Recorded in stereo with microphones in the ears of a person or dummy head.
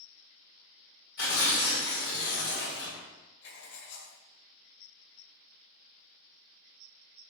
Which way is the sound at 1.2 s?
60° left (ahead or behind).